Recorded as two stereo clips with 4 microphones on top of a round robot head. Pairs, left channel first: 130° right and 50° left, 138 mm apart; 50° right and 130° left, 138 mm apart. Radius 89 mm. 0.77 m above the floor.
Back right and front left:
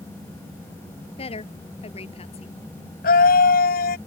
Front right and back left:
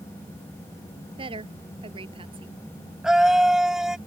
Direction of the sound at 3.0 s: 145° right.